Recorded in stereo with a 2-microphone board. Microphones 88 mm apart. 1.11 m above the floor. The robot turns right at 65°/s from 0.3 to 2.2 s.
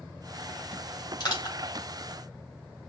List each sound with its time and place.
1.2 s crushing: 60° left (ahead or behind), 4 m; by 1.6 s 80° left, 4 m